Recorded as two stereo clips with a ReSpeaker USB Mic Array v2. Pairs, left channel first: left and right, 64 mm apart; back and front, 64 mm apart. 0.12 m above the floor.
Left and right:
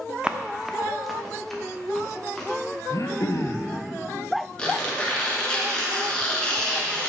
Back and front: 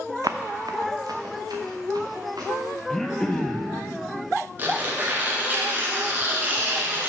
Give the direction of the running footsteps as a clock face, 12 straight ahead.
1 o'clock.